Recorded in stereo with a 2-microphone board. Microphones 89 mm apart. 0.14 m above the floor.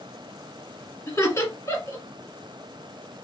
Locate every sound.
1.1 s laughter: 30° left (ahead or behind), 1.5 m